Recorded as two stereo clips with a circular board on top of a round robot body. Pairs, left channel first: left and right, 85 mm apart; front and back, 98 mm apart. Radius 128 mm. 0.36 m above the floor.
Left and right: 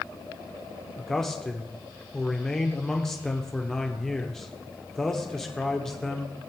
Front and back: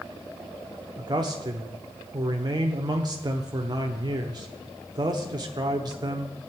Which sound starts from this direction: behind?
A man speaking, at 1.0 s.